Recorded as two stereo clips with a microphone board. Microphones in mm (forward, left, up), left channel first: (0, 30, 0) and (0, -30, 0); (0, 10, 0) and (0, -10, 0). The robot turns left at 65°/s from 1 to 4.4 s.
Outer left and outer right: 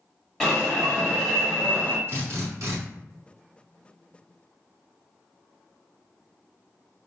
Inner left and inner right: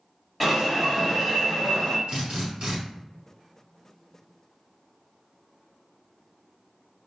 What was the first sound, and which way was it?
An alarm, 10° left (ahead or behind).